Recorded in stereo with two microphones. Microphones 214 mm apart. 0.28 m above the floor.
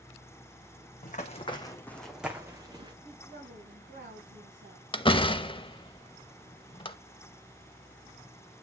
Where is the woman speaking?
60° right (ahead or behind), 5 m.